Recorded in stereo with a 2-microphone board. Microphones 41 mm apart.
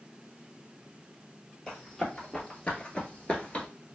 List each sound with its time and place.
1.7 s running footsteps: 20° left (ahead or behind), 1.4 m; by 3.7 s 25° left (ahead or behind), 1.0 m